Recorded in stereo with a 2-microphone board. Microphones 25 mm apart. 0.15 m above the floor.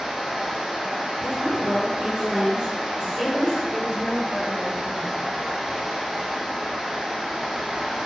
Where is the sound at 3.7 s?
15° right (ahead or behind), 1.2 m.